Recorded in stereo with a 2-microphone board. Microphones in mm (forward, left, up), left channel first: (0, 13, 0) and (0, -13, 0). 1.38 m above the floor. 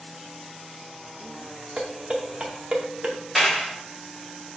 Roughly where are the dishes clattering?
Right.